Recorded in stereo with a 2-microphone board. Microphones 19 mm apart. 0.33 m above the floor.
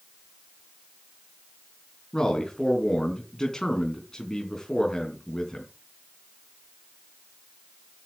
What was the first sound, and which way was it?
A man speaking, 35° left (ahead or behind).